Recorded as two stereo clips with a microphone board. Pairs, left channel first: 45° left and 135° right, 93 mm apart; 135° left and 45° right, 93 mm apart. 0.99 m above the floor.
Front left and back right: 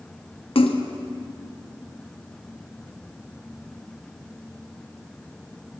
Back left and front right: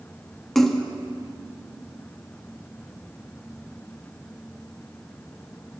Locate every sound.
0.6 s a splash: 50° left, 0.7 m